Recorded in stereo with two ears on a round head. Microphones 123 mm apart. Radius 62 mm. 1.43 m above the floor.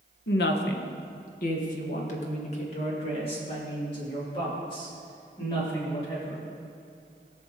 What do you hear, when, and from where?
0.3 s a woman speaking: 85° left, 1.0 m; by 6.4 s 30° left (ahead or behind), 3.5 m